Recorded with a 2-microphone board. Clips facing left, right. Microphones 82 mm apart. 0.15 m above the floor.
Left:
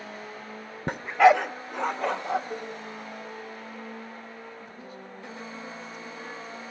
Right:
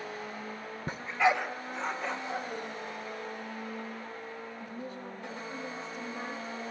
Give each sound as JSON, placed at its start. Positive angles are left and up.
{"t": 0.9, "sound": "a dog barking", "side_deg": 65, "distance_m": 0.6}
{"t": 2.5, "sound": "a cowbell", "side_deg": 25, "distance_m": 6.0}
{"t": 4.6, "sound": "a woman speaking", "side_deg": -35, "distance_m": 7.0}